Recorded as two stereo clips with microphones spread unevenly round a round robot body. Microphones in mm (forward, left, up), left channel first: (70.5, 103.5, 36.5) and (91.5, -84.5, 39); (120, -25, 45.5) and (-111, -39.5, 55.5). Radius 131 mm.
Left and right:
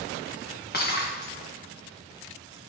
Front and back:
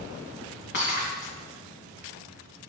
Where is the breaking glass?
55° left, 2.5 m.